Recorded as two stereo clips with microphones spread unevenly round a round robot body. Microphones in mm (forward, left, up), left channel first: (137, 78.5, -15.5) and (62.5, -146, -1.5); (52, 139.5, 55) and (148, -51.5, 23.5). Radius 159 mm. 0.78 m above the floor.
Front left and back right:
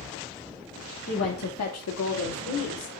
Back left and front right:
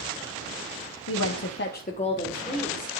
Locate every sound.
1.1 s a woman speaking: 125° left, 1.0 m; by 3.0 s 35° left, 2.5 m